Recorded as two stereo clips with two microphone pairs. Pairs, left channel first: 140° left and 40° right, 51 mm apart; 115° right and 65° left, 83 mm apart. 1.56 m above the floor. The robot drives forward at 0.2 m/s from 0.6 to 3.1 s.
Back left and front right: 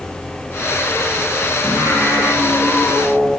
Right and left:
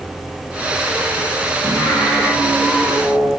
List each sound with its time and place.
1.6 s singing: 155° left, 7.5 m